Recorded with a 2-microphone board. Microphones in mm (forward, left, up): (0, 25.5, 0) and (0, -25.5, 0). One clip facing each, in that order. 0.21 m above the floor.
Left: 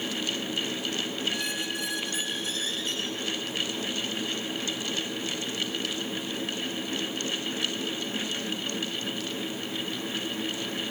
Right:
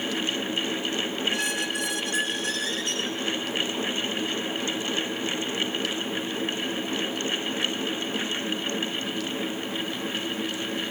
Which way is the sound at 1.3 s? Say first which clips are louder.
Right 4 dB; 75° right (ahead or behind).